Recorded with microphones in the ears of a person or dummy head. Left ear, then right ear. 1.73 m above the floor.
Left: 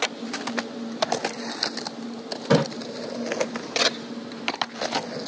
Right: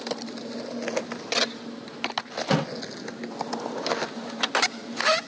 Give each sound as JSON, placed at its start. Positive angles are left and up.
{"t": 2.5, "sound": "a splash", "side_deg": -20, "distance_m": 1.0}